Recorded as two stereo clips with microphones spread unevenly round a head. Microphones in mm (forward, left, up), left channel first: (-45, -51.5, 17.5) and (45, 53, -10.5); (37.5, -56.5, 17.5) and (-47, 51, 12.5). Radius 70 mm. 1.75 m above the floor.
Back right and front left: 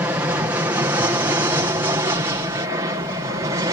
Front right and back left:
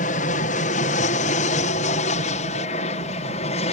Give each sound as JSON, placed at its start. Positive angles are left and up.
{"t": 0.0, "sound": "an aircraft", "azimuth_deg": -25}